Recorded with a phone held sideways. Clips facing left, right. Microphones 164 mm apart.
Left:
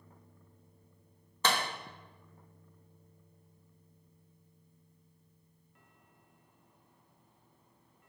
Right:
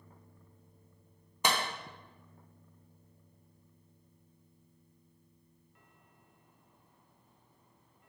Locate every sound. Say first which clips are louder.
1.4 s a clap: even; 15° right (ahead or behind), 1.2 m